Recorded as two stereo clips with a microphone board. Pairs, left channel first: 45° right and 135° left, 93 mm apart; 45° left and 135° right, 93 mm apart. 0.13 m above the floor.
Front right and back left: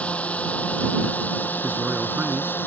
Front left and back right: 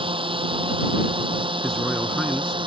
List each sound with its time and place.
0.0 s a drone: 120° right; by 2.7 s 110° right
1.6 s a man speaking: 125° left